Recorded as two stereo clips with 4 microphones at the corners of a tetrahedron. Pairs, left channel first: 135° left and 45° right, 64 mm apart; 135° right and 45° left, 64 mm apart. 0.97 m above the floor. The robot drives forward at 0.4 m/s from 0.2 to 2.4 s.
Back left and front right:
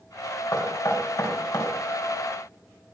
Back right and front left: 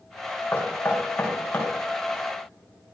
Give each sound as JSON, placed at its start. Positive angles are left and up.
{"t": 0.5, "sound": "knocking", "azimuth_deg": 155, "distance_m": 3.0}